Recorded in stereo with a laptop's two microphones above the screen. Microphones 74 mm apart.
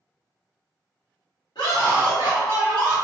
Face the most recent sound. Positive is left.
turn(degrees=85)